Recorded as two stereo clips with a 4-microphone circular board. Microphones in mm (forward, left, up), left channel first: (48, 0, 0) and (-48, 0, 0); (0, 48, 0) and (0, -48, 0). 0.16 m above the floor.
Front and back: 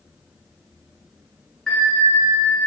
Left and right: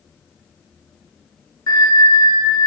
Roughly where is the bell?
Left.